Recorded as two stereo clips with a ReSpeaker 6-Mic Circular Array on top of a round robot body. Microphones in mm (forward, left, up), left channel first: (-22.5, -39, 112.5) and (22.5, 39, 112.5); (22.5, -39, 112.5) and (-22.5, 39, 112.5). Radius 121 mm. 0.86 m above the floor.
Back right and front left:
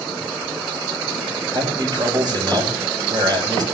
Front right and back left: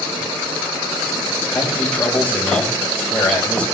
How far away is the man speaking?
About 4.5 m.